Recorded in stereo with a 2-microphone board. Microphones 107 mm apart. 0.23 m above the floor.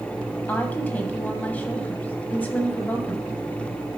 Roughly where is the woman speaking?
Centre.